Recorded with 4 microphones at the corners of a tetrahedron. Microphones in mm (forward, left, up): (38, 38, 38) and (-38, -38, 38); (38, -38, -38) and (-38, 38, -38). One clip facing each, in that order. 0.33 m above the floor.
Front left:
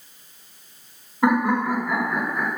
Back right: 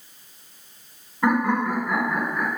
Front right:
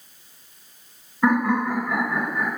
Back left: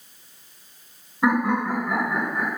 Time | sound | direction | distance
1.2 | laughter | 80° left | 1.2 m